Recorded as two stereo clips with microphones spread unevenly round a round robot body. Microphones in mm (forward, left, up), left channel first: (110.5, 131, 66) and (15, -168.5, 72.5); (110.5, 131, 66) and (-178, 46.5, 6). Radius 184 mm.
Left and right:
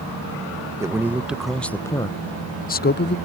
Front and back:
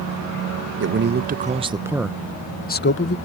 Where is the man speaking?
170° left; by 3.2 s 45° left.